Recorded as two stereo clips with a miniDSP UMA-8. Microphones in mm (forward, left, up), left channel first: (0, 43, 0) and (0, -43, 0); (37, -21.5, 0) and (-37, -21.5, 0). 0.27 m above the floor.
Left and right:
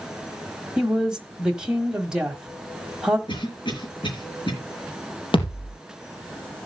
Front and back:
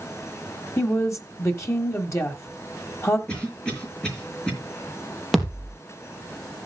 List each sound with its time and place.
0.8 s a woman speaking: 15° right, 1.3 m
3.3 s a cough: 80° left, 5.5 m
5.3 s a thud: 90° left, 4 m